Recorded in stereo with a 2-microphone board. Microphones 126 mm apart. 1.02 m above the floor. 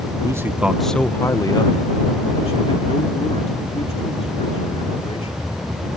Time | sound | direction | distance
0.2 | a man speaking | 25° right (ahead or behind) | ?